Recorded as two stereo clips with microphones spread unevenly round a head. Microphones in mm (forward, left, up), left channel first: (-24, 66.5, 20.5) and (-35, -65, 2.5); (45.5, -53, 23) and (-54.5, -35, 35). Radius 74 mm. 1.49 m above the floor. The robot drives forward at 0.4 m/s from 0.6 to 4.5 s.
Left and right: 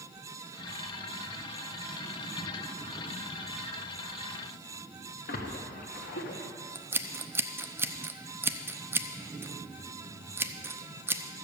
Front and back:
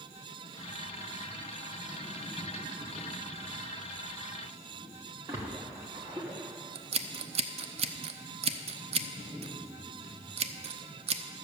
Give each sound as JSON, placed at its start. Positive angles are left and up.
{"t": 5.3, "sound": "a splash", "azimuth_deg": 100, "distance_m": 1.2}
{"t": 6.8, "sound": "scissors", "azimuth_deg": -165, "distance_m": 0.7}